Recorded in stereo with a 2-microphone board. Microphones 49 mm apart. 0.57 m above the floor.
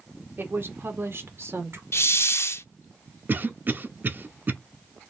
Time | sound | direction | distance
0.4 | a woman speaking | 50° right (ahead or behind) | 1.6 m
1.9 | a hiss | 60° left (ahead or behind) | 0.5 m
3.3 | a cough | 45° right (ahead or behind) | 0.9 m